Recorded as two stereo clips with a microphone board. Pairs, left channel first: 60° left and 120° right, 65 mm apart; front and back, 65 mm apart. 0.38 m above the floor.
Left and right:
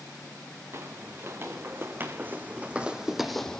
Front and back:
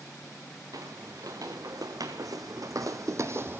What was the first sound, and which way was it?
Footsteps, 165° right.